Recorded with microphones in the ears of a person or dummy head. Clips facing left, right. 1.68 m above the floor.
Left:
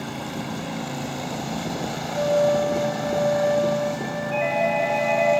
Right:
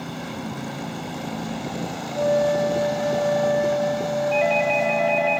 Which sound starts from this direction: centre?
A flute, at 2.1 s.